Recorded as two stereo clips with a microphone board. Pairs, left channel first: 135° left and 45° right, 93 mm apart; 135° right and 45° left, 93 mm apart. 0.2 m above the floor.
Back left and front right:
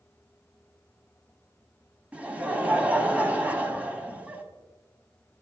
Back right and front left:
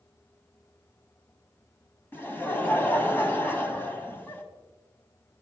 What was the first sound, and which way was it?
Laughter, 105° right.